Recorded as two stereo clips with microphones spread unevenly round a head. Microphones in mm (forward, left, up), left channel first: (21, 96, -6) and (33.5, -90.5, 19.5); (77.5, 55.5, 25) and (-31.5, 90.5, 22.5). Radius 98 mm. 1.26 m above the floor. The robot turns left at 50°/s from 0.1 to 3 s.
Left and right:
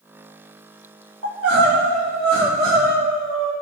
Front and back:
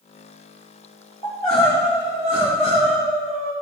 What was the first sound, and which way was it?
Crying, 80° right.